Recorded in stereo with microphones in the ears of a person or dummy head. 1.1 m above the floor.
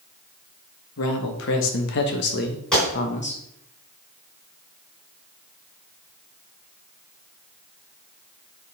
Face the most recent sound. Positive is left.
turn(degrees=5)  # may be behind; listen again after turning